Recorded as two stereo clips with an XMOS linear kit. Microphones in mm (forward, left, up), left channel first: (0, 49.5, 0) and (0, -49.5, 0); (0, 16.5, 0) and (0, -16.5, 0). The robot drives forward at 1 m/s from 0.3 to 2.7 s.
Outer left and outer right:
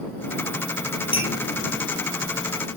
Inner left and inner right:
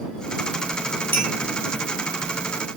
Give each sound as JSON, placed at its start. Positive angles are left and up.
{"t": 1.1, "sound": "a clink", "side_deg": 70, "distance_m": 7.0}